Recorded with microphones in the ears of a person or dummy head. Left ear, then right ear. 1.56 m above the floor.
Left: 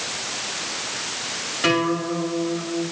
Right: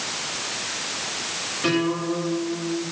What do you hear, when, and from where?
1.6 s a guitar: 30° left (ahead or behind), 9.5 m